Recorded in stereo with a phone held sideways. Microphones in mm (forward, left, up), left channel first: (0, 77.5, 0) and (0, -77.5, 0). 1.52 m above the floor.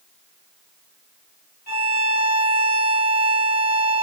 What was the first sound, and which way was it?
A violin, 80° left.